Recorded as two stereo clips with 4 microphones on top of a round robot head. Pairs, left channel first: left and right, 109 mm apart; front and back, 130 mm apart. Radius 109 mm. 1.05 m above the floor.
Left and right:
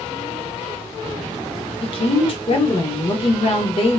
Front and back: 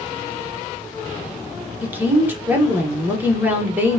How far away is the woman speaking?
About 1.0 m.